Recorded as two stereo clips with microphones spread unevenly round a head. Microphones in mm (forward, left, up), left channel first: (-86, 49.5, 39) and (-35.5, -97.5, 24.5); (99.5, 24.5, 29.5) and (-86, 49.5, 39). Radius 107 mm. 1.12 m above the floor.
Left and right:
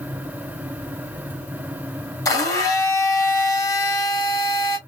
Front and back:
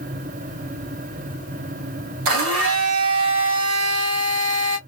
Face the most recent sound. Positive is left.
turn(degrees=175)